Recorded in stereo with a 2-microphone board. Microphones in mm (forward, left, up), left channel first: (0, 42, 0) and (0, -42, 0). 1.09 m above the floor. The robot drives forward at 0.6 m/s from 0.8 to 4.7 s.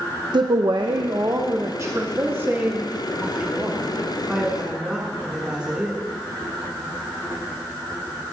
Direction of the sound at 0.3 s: 65° right (ahead or behind).